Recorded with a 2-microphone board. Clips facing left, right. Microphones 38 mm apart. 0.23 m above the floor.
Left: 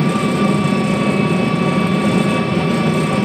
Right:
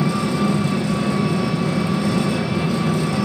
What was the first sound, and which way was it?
An engine running, 50° left (ahead or behind).